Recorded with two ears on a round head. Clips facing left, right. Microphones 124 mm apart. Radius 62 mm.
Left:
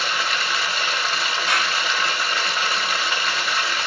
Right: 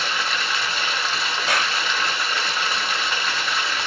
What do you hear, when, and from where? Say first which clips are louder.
0.0 s running water: left 1 dB; 5° left (ahead or behind), 0.8 m
1.5 s a clap: right 1 dB; 70° right (ahead or behind), 3 m